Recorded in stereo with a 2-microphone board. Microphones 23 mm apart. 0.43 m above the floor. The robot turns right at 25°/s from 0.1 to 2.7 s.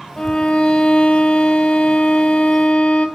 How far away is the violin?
About 1.2 m.